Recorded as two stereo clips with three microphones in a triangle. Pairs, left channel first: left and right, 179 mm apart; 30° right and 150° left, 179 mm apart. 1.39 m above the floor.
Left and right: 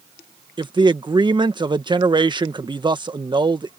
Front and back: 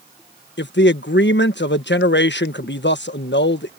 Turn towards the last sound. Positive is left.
turn(degrees=-25)